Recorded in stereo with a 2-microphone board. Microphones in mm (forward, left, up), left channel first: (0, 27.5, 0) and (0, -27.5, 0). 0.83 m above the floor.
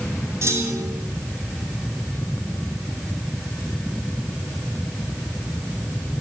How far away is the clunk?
About 2.5 m.